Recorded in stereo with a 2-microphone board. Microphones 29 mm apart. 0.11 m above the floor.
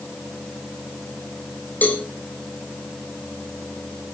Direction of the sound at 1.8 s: 65° left (ahead or behind).